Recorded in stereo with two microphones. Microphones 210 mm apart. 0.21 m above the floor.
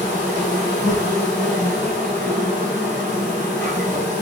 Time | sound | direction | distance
0.0 | an insect | 5° left (ahead or behind) | 1.7 m